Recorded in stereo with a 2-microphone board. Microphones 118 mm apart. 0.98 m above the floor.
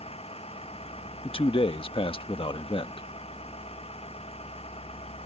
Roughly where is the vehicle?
Left.